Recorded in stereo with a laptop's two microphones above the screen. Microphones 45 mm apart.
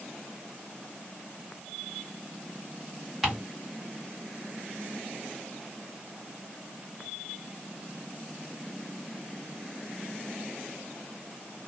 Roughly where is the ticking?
Centre.